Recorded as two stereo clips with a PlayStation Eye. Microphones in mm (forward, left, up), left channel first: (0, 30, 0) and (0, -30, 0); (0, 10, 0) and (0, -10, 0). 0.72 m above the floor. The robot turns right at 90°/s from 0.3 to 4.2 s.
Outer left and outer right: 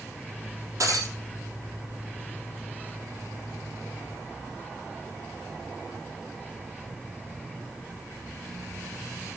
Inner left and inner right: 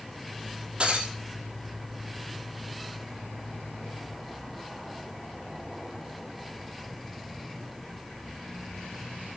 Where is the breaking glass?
125° right, 3.5 m; by 1.1 s 90° right, 3.5 m.